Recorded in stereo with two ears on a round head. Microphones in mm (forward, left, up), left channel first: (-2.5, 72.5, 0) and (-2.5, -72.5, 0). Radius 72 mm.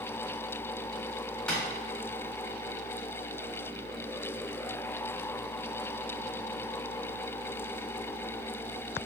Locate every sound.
1.5 s tapping: 5° left (ahead or behind), 1.5 m